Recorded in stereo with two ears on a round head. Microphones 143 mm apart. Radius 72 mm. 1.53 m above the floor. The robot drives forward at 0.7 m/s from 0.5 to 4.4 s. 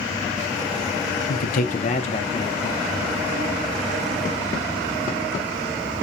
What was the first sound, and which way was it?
A man speaking, 65° left (ahead or behind).